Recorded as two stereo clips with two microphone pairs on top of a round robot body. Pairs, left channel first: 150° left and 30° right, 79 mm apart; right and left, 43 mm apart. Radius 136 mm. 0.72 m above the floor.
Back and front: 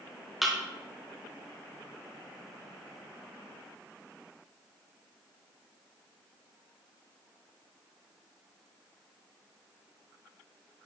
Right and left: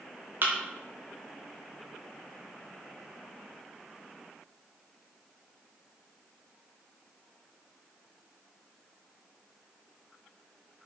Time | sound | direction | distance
0.4 | a thud | 55° left | 0.5 m